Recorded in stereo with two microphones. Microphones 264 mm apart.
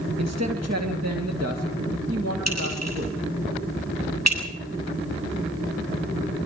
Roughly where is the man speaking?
Right.